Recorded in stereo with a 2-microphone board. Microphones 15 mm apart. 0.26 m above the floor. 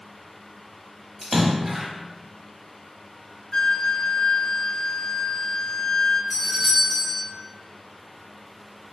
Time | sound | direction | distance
1.2 | a splash | 10° right (ahead or behind) | 1.0 m
3.5 | a flute | 65° left (ahead or behind) | 0.5 m
6.3 | a doorbell | 5° left (ahead or behind) | 1.5 m